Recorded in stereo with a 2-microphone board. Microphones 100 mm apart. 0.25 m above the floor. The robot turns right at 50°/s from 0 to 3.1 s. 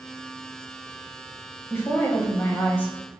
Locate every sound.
1.7 s a woman speaking: 25° left (ahead or behind), 0.9 m; by 2.9 s 20° left (ahead or behind), 0.9 m